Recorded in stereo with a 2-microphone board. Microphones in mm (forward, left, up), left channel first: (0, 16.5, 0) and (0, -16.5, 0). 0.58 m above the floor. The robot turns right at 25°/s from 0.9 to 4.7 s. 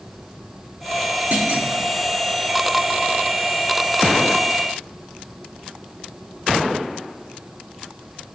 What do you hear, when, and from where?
1.3 s a clunk: 50° right (ahead or behind), 1.9 m; by 1.7 s 55° right (ahead or behind), 1.9 m